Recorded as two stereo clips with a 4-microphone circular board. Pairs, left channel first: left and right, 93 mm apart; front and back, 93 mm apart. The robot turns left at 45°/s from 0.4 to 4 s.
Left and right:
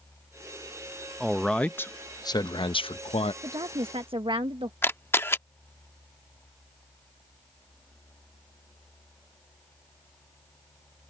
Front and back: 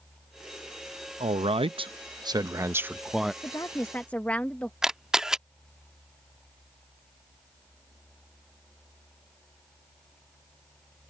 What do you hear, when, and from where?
1.2 s a man speaking: 175° right; by 3.3 s 90° left
3.4 s a woman speaking: 50° right; by 4.7 s 75° right
4.8 s a camera shutter: 105° left